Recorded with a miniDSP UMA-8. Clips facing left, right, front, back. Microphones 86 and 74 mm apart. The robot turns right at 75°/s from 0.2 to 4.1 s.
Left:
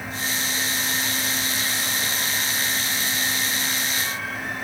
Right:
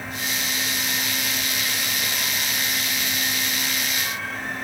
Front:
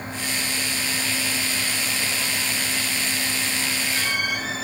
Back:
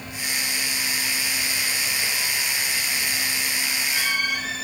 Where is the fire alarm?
No fire alarm in this recording.